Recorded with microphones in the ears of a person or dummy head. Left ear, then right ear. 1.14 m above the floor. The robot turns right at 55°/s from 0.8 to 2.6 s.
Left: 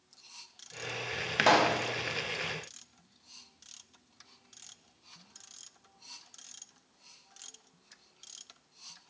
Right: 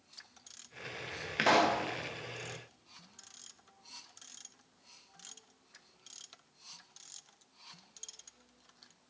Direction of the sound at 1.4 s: 30° left (ahead or behind).